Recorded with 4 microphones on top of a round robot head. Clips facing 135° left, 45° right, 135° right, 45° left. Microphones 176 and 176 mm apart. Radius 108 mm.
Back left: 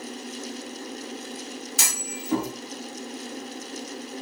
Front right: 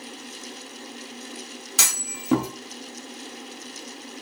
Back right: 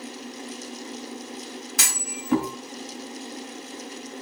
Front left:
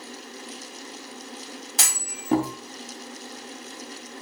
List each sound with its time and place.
1.8 s a clunk: 20° right, 1.9 m